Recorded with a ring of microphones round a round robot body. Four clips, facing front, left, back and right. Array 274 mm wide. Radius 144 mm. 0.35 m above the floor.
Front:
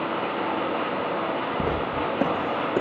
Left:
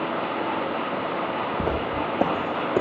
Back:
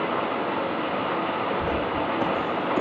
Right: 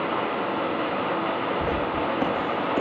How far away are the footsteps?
About 3 m.